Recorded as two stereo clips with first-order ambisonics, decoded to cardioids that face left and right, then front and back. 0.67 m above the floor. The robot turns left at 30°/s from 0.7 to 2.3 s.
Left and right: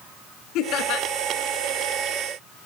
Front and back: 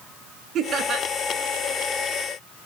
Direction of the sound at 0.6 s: 125° left.